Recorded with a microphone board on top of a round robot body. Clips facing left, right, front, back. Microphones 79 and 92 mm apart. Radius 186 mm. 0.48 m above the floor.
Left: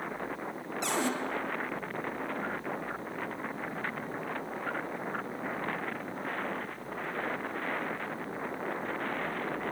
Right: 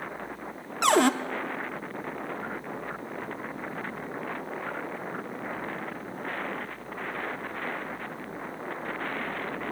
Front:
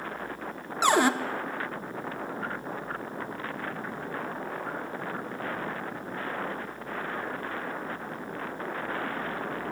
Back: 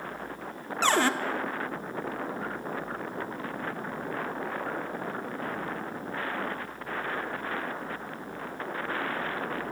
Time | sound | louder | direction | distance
0.8 | a cupboard door | right 10 dB, front 2 dB | 75° right | 0.7 m